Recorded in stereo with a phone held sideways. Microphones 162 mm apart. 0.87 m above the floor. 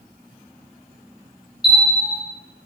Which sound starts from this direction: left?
A bell, at 1.6 s.